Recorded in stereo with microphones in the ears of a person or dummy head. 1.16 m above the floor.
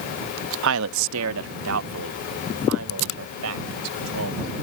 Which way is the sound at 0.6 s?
70° right (ahead or behind).